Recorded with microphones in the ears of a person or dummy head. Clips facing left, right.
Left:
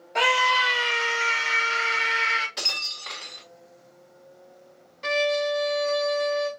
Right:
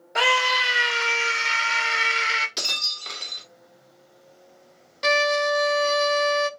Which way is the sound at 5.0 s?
70° right (ahead or behind).